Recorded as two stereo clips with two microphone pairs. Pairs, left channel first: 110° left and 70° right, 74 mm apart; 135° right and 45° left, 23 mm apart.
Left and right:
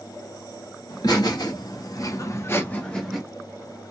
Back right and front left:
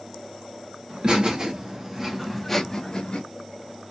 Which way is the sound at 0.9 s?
95° left.